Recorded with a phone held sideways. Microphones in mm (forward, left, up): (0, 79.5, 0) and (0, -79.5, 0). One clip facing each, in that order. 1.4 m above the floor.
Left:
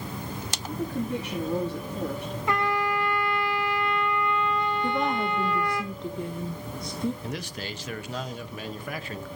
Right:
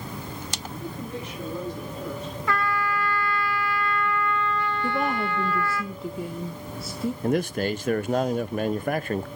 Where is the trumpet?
20° left (ahead or behind), 1.0 m.